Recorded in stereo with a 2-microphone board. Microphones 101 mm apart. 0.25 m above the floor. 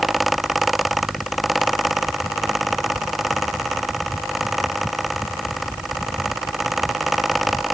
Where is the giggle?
I don't hear a giggle.